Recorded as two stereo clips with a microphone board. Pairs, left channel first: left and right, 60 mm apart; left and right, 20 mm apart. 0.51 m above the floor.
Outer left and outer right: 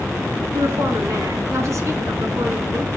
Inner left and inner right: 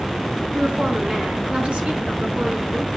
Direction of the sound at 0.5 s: 70° right (ahead or behind).